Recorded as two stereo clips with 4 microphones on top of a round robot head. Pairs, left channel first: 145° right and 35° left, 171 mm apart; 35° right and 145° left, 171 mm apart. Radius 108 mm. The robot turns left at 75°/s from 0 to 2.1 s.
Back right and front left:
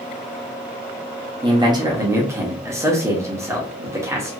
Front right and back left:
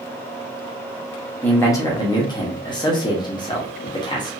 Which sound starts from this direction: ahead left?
A man speaking, at 1.4 s.